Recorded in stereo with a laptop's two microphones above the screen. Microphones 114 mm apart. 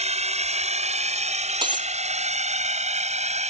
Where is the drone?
70° right (ahead or behind); by 3.5 s 75° right (ahead or behind).